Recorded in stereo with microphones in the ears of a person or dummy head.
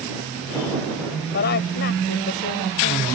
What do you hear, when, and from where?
1.3 s a woman speaking: 50° left (ahead or behind)